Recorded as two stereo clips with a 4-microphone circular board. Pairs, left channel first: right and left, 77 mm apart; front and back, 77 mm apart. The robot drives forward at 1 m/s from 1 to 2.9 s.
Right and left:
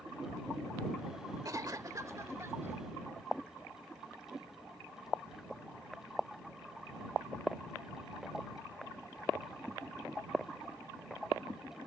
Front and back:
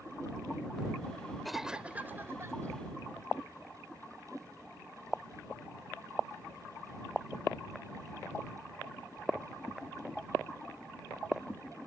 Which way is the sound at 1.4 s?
90° left.